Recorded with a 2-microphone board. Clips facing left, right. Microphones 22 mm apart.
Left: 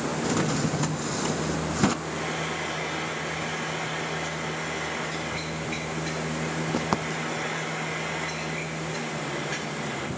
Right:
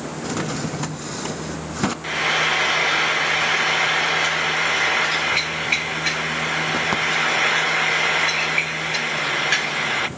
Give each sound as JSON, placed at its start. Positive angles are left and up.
{"t": 0.2, "sound": "a drawer", "side_deg": -10, "distance_m": 0.6}
{"t": 2.0, "sound": "frying", "side_deg": -70, "distance_m": 0.6}